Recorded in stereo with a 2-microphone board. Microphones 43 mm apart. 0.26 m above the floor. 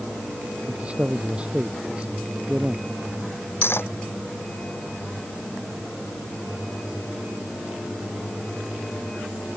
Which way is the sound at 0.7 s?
30° right (ahead or behind).